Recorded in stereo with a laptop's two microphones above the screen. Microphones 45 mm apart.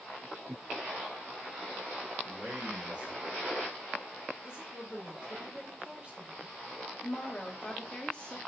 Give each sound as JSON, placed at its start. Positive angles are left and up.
{"t": 2.2, "sound": "a man speaking", "side_deg": -30, "distance_m": 1.8}
{"t": 4.4, "sound": "a woman speaking", "side_deg": -25, "distance_m": 1.7}
{"t": 7.0, "sound": "a woman speaking", "side_deg": 25, "distance_m": 0.7}